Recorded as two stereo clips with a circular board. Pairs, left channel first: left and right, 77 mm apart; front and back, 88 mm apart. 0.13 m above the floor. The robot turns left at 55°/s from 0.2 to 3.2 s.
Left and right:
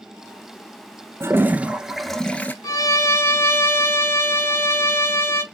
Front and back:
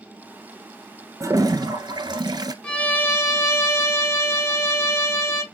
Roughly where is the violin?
Left.